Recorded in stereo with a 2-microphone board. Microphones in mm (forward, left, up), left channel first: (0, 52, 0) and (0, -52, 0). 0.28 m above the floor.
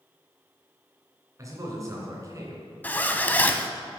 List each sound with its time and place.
1.4 s a man speaking: 30° right (ahead or behind), 2.5 m
2.8 s a zipper: 15° left (ahead or behind), 0.5 m